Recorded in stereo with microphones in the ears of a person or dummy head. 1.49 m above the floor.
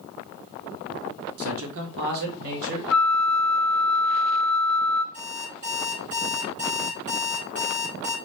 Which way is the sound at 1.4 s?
70° right (ahead or behind).